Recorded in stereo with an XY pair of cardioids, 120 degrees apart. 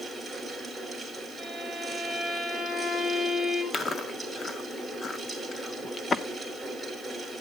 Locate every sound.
0.0 s a fan: 10° right, 4.5 m
1.4 s a violin: straight ahead, 5 m
3.7 s chewing: 25° left, 1.9 m